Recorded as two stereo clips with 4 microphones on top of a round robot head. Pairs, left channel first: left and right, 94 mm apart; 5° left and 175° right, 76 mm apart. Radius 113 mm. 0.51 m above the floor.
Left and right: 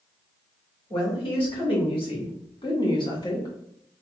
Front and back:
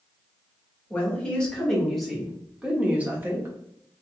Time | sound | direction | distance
0.9 | a woman speaking | 75° left | 1.9 m